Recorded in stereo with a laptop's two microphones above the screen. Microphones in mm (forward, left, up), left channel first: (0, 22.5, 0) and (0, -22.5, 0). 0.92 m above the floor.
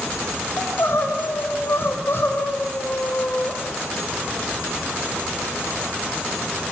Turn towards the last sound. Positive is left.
turn(degrees=60)  # may be behind; listen again after turning